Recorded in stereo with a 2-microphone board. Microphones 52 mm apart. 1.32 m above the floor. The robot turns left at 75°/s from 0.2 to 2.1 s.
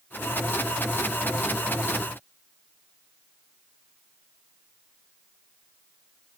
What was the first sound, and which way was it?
Only background noise.